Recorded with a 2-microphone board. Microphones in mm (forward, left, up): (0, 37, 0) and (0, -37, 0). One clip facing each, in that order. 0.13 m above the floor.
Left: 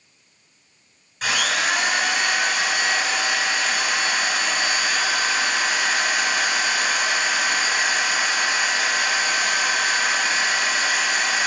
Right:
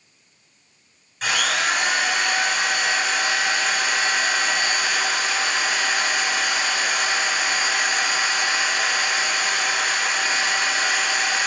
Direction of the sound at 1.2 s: Centre (ahead or behind).